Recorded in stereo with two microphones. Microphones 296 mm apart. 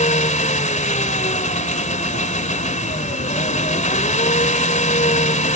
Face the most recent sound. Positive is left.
turn(degrees=25)  # may be behind; listen again after turning